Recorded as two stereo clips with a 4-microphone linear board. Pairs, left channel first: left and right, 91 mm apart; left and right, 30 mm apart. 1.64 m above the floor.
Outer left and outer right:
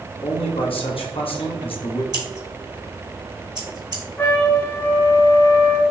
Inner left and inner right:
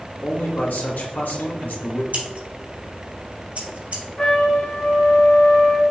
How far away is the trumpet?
About 1.1 m.